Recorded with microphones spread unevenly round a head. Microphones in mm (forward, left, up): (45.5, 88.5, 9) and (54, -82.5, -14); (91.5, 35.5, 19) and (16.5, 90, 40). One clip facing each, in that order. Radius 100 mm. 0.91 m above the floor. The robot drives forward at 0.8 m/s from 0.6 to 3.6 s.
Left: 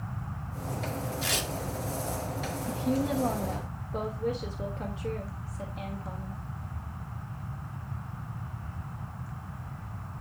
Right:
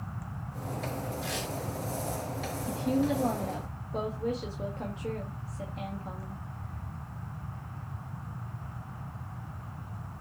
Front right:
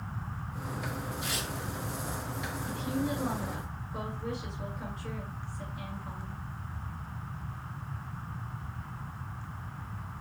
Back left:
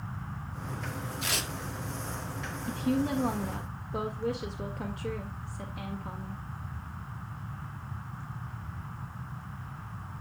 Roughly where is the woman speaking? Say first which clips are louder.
Right 1 dB, back left 5 dB; behind.